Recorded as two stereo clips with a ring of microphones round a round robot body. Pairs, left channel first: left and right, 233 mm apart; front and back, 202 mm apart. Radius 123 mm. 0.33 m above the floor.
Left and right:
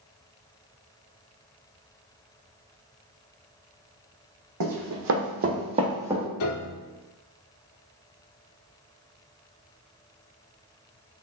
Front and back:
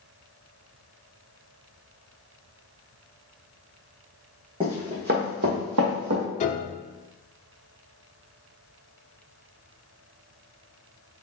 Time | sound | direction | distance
4.6 | running footsteps | 110° right | 1.2 m
6.4 | a piano | 55° left | 0.5 m